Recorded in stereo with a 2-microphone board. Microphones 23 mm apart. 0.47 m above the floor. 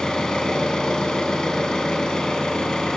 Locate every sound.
0.0 s an engine running: 30° left (ahead or behind), 3.5 m